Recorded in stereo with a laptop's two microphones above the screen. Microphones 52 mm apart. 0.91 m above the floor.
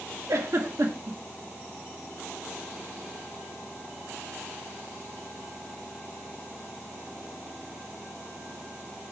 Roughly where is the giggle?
Right.